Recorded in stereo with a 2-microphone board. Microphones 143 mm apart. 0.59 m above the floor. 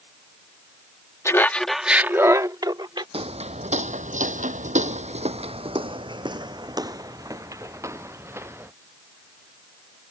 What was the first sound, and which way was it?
Laughter, 20° left (ahead or behind).